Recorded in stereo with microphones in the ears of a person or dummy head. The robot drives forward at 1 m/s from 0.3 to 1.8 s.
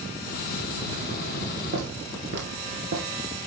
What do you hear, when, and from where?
1.7 s footsteps: 50° right (ahead or behind), 2.5 m; by 3.1 s 45° right (ahead or behind), 2.5 m